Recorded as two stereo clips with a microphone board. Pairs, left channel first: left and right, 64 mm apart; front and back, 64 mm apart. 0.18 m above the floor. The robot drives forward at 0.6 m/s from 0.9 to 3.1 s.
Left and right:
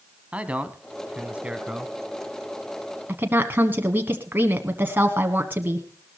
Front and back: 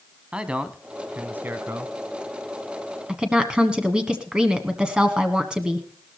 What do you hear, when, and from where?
0.3 s a man speaking: 125° right, 1.2 m; by 1.9 s 155° right, 1.5 m
3.1 s a woman speaking: 115° right, 1.2 m